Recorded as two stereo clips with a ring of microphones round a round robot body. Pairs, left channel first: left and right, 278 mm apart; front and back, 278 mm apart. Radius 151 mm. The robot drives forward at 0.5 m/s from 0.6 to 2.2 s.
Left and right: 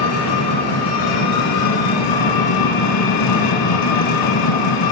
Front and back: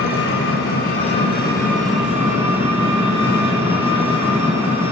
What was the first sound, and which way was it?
An engine running, 60° left.